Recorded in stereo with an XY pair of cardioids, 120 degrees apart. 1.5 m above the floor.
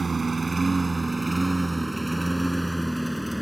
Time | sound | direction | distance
0.0 | a lawn mower | 30° right | ?